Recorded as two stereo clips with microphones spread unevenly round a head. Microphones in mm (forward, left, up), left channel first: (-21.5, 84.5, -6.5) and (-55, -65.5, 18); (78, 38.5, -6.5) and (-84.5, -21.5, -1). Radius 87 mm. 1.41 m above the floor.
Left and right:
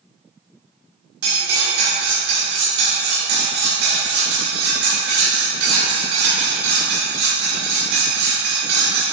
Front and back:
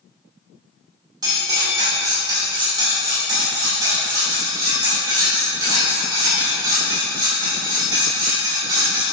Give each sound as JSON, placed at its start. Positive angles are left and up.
{"t": 1.2, "sound": "cutlery clinking", "azimuth_deg": -95, "distance_m": 2.0}